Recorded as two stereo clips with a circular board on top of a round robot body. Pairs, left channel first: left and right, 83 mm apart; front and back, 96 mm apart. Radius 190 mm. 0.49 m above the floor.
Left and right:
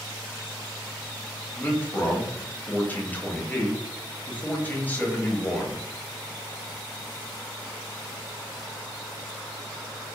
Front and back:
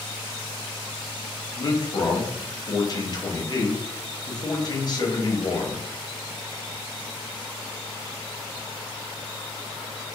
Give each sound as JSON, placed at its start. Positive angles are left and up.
{"t": 1.6, "sound": "a man speaking", "azimuth_deg": 25, "distance_m": 0.9}